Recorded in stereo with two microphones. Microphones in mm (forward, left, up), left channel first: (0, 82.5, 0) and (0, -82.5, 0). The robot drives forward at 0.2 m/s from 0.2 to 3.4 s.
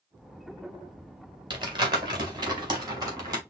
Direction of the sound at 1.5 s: 25° right (ahead or behind).